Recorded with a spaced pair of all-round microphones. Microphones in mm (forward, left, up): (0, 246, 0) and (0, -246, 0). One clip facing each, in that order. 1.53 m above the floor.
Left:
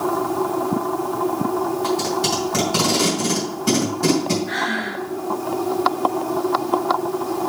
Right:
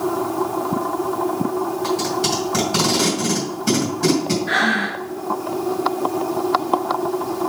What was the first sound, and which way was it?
Tape being pulled, 5° right (ahead or behind).